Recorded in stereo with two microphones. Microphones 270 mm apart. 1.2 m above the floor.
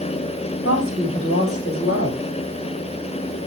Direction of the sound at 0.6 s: 55° left (ahead or behind).